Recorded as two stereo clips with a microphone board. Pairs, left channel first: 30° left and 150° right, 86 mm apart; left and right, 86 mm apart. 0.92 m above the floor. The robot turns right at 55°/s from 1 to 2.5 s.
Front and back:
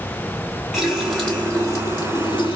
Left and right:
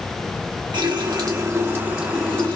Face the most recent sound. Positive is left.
turn(degrees=20)